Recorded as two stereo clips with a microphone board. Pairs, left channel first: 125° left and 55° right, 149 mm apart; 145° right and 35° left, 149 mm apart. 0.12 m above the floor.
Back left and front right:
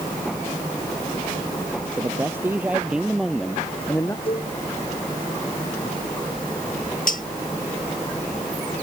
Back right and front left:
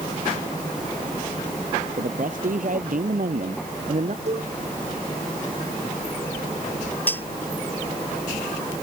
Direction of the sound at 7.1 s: 140° left.